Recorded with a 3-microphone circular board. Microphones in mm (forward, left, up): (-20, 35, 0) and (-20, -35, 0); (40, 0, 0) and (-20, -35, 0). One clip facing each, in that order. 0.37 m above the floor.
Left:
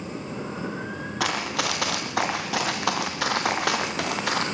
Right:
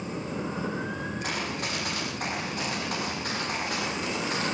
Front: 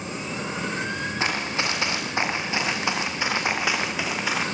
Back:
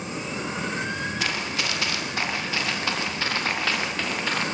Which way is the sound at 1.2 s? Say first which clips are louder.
Left 5 dB, front 2 dB; 95° left.